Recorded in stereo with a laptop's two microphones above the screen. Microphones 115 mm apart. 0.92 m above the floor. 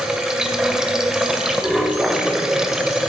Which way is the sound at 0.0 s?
5° right (ahead or behind).